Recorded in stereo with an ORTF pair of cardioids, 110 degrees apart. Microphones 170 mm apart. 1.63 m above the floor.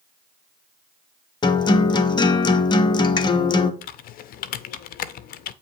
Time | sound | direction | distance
1.4 | a guitar | 25° left | 0.7 m
3.8 | typing on a keyboard | 60° left | 0.5 m